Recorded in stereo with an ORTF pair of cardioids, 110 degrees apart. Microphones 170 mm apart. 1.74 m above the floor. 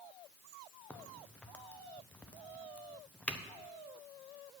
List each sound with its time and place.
0.9 s a crack: 5° left, 0.9 m